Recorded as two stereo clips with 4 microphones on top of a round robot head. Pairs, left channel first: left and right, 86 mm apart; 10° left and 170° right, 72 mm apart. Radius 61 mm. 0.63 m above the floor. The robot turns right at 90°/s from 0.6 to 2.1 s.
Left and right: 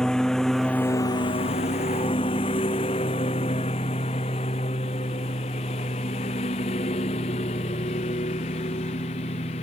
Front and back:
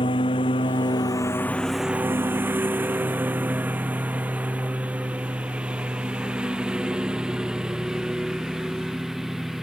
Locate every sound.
0.0 s a lawn mower: 5° left; by 9.6 s 105° left